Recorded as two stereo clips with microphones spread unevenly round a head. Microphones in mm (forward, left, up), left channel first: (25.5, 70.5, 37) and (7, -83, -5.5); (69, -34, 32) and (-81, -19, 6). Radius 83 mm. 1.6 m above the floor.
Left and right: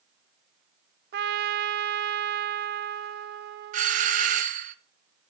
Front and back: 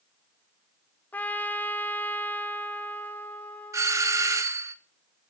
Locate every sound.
1.1 s a trumpet: 75° right, 0.6 m
3.7 s a doorbell: 120° right, 0.7 m